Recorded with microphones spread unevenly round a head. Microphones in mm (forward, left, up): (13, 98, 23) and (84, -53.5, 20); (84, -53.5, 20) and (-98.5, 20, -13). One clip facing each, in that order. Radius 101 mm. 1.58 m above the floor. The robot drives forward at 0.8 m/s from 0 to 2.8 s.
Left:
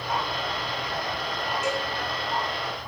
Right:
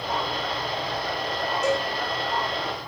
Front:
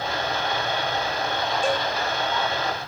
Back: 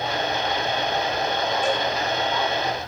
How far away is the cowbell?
About 4 m.